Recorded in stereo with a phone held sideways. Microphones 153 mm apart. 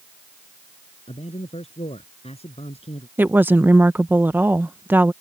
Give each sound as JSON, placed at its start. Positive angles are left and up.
{"t": 1.1, "sound": "a man speaking", "side_deg": 40}
{"t": 3.2, "sound": "a woman speaking", "side_deg": -10}